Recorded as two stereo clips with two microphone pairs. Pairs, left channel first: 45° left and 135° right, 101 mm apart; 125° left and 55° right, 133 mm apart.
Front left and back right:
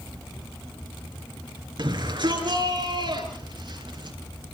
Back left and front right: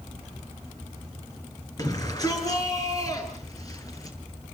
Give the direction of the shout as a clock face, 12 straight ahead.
6 o'clock.